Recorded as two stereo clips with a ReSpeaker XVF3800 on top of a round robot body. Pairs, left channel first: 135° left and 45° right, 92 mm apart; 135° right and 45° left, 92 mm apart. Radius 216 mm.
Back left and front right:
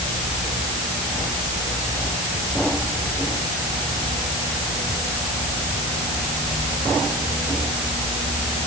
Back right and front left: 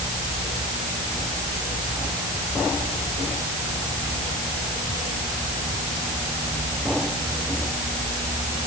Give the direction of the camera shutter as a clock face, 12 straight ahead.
I don't hear a camera shutter.